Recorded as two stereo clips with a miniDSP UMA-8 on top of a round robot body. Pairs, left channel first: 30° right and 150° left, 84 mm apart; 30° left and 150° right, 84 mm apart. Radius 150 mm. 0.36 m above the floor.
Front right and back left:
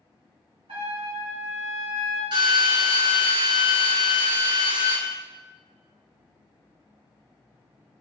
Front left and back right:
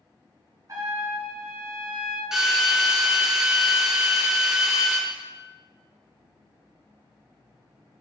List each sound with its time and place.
0.7 s a trumpet: 165° left, 3 m
2.3 s a drill: 125° left, 3 m